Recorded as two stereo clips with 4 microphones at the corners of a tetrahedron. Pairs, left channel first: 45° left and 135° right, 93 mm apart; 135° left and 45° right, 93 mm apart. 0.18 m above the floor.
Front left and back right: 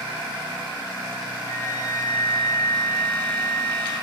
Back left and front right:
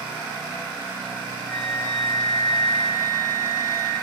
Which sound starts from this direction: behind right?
A flute, at 1.4 s.